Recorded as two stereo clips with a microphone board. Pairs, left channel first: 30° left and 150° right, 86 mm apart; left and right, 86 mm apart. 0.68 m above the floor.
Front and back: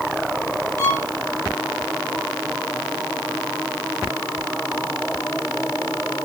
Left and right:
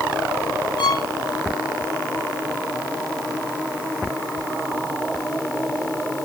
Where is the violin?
95° left, 2.0 m.